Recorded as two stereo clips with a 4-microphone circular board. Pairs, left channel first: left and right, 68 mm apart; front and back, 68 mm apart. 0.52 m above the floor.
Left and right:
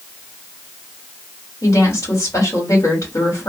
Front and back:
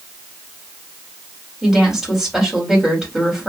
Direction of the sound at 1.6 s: 95° left.